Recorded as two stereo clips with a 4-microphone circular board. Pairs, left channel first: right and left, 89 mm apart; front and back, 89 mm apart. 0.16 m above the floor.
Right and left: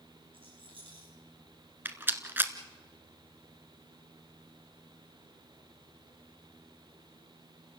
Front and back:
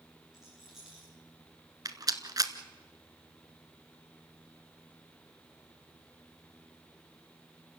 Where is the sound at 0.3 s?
95° left, 9 m.